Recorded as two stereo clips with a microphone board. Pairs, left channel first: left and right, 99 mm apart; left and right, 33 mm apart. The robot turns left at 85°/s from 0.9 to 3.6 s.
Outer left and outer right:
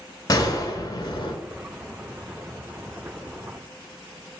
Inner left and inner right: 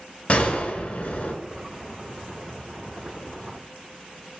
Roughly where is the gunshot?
Behind left.